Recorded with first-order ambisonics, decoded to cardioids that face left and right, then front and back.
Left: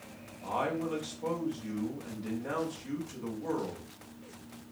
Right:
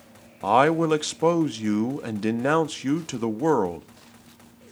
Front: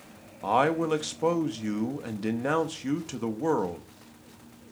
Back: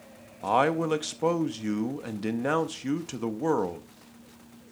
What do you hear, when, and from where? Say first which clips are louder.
0.4 s a man speaking: right 14 dB, even; 95° right, 0.6 m